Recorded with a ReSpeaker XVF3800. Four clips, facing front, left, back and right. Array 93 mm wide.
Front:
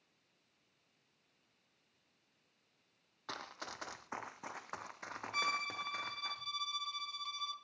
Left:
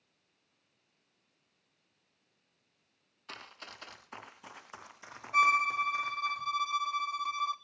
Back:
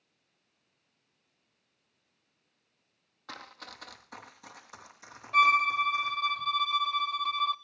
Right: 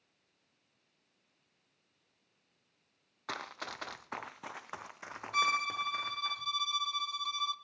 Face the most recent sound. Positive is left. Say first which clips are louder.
# left 5 dB, back 16 dB
turn(degrees=160)